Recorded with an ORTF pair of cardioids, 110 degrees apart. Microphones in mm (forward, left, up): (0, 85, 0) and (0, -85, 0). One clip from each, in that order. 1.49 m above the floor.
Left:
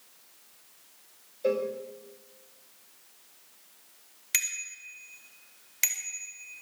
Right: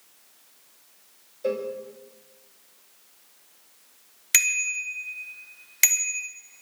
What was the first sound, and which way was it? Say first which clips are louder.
A cowbell: even; straight ahead.